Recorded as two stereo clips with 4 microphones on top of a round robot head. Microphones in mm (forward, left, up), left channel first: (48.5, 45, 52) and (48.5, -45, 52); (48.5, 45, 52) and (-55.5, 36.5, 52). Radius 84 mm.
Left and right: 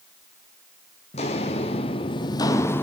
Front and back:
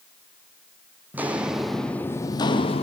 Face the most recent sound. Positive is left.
turn(degrees=25)